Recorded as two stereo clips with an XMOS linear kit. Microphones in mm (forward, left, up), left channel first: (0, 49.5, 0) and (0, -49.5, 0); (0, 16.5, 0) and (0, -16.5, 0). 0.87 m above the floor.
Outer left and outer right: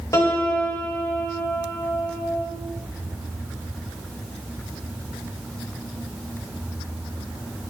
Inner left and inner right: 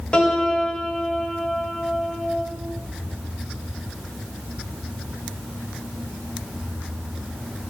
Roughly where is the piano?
Left.